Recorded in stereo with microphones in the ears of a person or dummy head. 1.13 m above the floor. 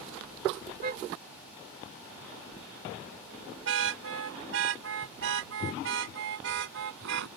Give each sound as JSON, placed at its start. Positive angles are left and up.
{"t": 0.8, "sound": "a car horn", "side_deg": -50}